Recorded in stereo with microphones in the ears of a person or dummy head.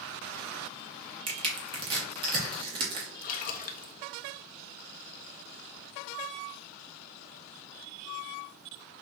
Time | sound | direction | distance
1.3 | crushing | 25° right (ahead or behind) | 1.0 m
3.2 | a splash | 45° left (ahead or behind) | 0.5 m